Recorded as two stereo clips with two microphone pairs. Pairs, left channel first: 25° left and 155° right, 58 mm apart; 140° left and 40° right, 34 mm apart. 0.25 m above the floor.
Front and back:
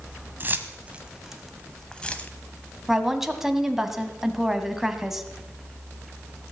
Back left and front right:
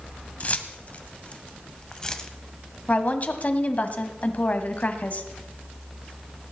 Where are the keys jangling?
165° left, 1.3 m; by 2.3 s 75° left, 1.3 m.